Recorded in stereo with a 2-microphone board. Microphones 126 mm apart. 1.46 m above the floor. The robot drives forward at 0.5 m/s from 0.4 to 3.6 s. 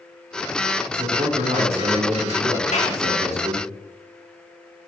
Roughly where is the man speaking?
Right.